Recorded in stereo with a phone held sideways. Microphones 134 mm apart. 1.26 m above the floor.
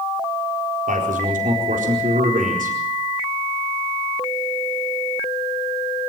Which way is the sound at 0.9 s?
80° right.